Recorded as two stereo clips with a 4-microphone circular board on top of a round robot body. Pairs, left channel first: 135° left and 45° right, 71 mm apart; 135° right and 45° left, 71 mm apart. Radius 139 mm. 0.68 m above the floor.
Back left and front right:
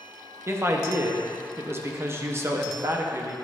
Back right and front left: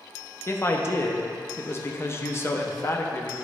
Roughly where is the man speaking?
Right.